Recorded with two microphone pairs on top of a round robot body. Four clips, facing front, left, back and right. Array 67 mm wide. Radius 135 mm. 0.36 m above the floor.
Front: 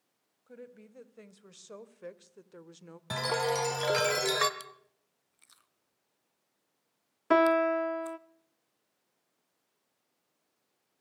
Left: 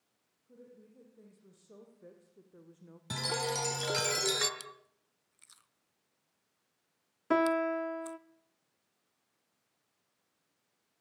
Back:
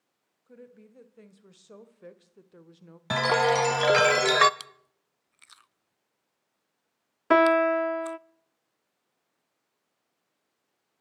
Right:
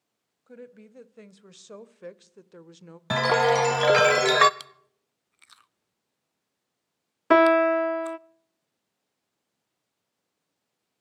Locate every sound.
0.5 s a woman speaking: 65° right, 2.5 m; by 3.0 s 55° right, 1.3 m
3.1 s a chime: 125° right, 0.8 m
4.6 s chewing: 135° right, 0.6 m
7.3 s a piano: 110° right, 0.6 m